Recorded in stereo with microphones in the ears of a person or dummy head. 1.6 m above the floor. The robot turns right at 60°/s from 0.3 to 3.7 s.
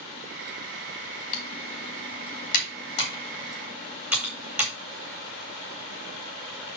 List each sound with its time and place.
1.3 s typing on a keyboard: 45° left (ahead or behind), 2 m; by 4.7 s 10° right (ahead or behind), 2 m